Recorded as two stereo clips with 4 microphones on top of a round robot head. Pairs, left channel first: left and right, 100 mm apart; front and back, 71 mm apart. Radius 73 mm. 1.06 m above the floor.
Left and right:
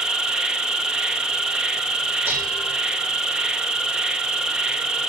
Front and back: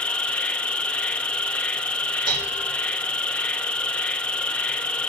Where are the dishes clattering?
165° right, 3 m.